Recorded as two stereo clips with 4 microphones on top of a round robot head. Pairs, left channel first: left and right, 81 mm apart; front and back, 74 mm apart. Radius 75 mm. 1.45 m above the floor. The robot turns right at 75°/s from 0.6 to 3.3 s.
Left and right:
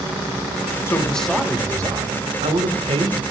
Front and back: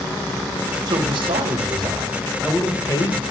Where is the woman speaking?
150° left, 1.4 m; by 3.2 s 35° right, 1.4 m.